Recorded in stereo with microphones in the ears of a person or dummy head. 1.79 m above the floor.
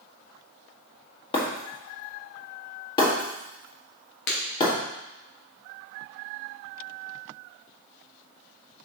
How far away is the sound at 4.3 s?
About 1.9 m.